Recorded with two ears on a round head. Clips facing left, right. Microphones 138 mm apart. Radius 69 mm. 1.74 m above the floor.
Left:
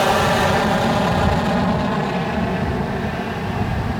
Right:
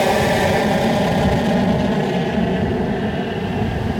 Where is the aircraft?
20° right (ahead or behind); by 4.0 s 35° right (ahead or behind).